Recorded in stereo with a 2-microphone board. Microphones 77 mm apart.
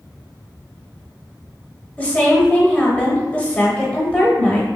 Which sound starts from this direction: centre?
A woman speaking, at 2.0 s.